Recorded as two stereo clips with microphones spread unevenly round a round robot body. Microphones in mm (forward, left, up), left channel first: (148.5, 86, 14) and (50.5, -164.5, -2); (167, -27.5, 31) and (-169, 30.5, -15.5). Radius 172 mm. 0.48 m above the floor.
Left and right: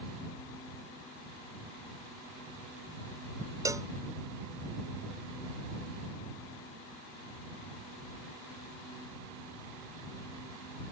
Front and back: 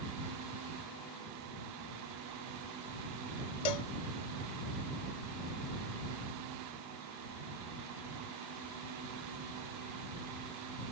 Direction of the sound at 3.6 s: 30° right.